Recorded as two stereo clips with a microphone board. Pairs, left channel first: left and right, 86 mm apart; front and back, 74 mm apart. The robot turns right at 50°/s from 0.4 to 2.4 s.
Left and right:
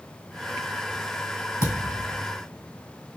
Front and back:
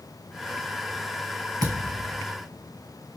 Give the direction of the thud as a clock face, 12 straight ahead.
7 o'clock.